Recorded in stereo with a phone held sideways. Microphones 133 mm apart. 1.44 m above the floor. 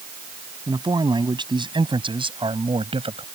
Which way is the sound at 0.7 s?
35° right (ahead or behind).